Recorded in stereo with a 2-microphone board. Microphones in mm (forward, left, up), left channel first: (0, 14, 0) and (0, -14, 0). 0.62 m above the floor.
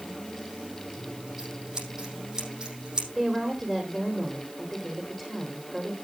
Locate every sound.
1.0 s scissors: 25° right (ahead or behind), 5 m
3.1 s a woman speaking: 10° right (ahead or behind), 1.8 m